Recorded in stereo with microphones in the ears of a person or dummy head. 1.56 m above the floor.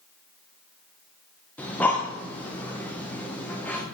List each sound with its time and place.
1.6 s breathing: 5° left (ahead or behind), 0.7 m